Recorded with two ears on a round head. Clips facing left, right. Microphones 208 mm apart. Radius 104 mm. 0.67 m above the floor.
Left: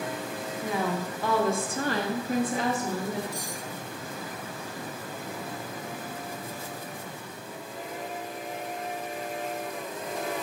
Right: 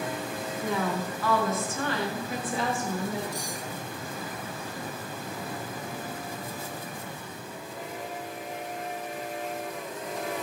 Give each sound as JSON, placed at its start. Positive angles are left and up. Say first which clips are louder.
{"t": 0.6, "sound": "a woman speaking", "louder": "even", "side_deg": 10, "distance_m": 1.2}
{"t": 3.3, "sound": "cutlery clinking", "louder": "right 1 dB", "side_deg": 65, "distance_m": 2.5}